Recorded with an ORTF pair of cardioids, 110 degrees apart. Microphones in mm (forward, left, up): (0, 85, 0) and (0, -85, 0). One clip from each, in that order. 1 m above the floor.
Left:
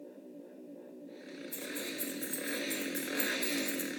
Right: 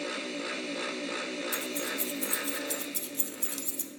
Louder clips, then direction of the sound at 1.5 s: Right 7 dB; 35° right.